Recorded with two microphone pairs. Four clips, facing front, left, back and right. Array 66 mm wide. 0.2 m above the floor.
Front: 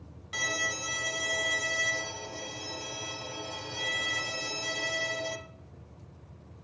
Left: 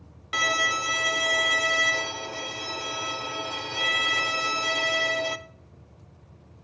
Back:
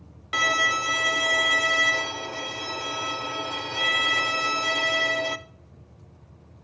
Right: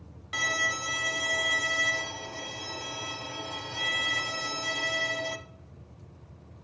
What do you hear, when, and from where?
0.3 s a violin: 155° left, 0.5 m